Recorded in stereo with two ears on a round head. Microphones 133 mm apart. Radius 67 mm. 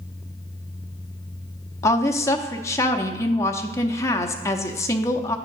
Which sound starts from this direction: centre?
A woman speaking, at 1.8 s.